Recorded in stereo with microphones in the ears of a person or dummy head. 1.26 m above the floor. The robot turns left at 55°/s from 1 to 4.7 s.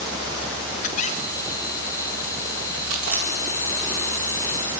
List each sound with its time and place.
0.8 s a squeak: 45° left, 3.5 m; by 1.8 s 5° left, 3.5 m
2.9 s chewing: 65° right (ahead or behind), 4 m; by 4.6 s 30° left (ahead or behind), 4 m